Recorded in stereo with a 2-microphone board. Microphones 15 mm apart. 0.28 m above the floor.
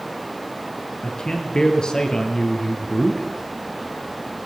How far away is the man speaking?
About 4.5 m.